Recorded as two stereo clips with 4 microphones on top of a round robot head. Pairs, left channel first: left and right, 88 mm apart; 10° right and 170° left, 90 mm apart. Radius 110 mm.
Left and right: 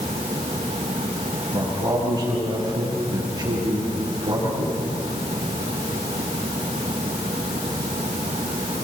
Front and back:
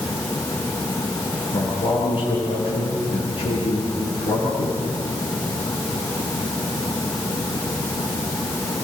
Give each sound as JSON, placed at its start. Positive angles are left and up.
{"t": 1.5, "sound": "a man speaking", "azimuth_deg": -35, "distance_m": 9.5}